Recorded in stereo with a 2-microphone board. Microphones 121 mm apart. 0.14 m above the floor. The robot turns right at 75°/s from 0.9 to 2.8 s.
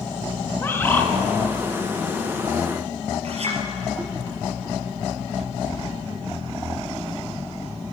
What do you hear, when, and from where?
0.5 s a bird: 20° left (ahead or behind), 1.0 m; by 1.1 s 5° left (ahead or behind), 1.0 m
3.2 s a clink: 60° right (ahead or behind), 2.5 m